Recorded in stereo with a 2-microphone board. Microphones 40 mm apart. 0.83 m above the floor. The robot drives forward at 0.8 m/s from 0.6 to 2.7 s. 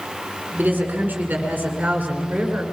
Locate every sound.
0.6 s a woman speaking: 50° right (ahead or behind), 7.5 m; by 2.6 s 40° right (ahead or behind), 8.5 m